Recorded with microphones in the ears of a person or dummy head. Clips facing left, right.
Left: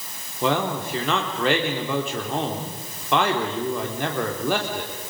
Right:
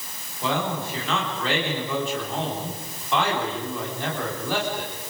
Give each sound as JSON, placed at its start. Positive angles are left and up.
{"t": 0.4, "sound": "a man speaking", "side_deg": 55, "distance_m": 4.0}